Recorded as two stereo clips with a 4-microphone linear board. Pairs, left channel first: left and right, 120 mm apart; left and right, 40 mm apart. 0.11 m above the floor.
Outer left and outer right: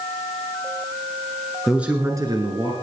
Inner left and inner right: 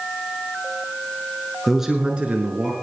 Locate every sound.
1.7 s a man speaking: centre (ahead or behind), 1.3 m; by 2.7 s 45° right (ahead or behind), 1.8 m